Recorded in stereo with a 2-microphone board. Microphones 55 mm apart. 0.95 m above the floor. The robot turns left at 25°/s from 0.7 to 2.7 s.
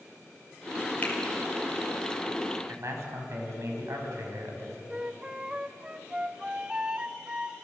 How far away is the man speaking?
About 5.5 m.